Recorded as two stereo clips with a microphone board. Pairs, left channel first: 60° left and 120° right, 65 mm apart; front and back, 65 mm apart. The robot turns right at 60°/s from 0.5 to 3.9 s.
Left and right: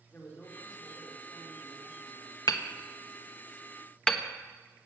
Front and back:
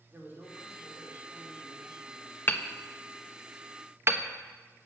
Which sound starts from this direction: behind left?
A man speaking, at 0.1 s.